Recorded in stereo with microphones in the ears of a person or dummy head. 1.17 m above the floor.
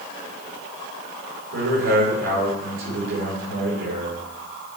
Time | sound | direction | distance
1.5 | a man speaking | 75° right (ahead or behind) | 4.5 m